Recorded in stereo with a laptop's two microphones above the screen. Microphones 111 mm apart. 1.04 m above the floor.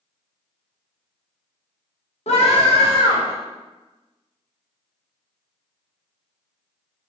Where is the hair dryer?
I don't hear a hair dryer.